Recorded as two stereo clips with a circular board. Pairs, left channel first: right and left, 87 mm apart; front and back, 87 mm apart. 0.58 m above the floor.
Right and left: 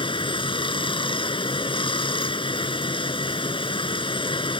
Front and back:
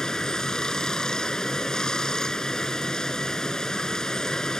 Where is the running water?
85° right.